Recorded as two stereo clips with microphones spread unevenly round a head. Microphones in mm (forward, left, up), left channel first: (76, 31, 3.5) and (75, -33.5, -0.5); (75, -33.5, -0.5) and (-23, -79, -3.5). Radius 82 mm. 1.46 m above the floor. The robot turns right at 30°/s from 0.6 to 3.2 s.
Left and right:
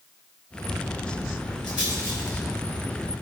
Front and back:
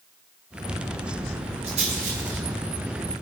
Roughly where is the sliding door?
I don't hear a sliding door.